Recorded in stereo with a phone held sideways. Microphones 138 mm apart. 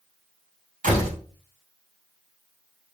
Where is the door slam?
75° right (ahead or behind), 2.5 m.